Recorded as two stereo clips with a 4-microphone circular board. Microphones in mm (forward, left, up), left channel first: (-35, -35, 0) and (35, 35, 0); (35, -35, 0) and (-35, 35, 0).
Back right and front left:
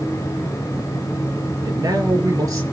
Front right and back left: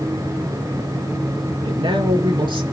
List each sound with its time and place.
1.6 s a man speaking: 100° left, 6.5 m